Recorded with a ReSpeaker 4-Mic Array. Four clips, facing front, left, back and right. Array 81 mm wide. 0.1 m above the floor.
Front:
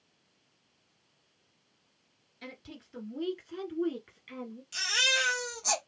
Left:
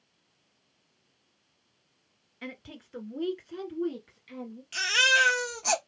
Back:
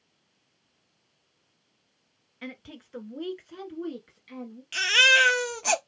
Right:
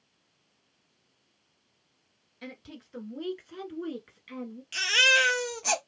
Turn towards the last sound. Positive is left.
turn(degrees=-170)